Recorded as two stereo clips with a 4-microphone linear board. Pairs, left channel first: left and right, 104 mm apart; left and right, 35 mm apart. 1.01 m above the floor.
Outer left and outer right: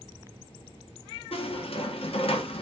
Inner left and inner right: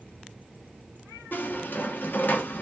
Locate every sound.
1.3 s a squeak: 65° left (ahead or behind), 0.7 m